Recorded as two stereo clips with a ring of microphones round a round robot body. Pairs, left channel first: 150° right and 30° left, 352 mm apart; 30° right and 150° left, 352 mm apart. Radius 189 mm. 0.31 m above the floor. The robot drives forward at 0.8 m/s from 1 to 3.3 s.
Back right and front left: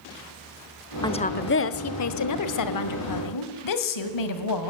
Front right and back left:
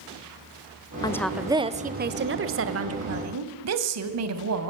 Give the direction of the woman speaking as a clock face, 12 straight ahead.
3 o'clock.